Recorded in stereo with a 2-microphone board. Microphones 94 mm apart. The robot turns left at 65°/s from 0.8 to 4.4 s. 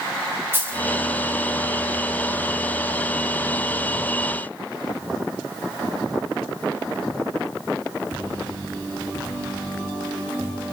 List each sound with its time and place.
0.5 s a dropped coin: 20° right (ahead or behind), 2.5 m